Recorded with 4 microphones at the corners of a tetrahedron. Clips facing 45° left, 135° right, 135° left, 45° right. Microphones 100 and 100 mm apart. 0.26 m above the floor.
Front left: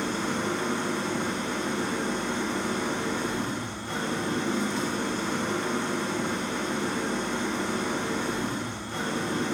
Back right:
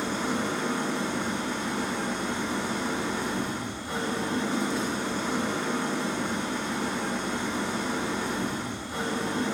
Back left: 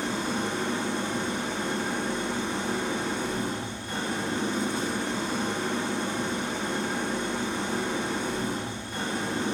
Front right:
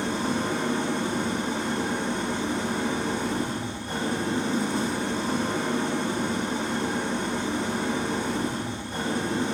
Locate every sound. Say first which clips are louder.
0.0 s an engine running: even, front right 2 dB; 65° right, 0.8 m